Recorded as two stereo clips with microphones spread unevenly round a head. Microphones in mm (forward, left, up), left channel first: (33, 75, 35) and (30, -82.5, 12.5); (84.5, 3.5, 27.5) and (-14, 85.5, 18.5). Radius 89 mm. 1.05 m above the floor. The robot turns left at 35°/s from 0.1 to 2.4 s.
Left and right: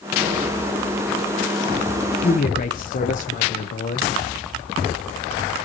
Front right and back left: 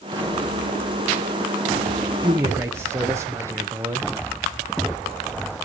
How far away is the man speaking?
About 0.8 m.